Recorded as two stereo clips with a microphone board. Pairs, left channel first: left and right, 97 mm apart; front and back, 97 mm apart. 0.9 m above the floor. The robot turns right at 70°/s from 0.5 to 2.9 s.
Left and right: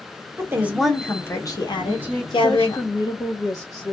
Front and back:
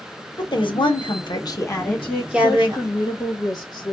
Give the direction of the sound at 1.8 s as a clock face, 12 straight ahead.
1 o'clock.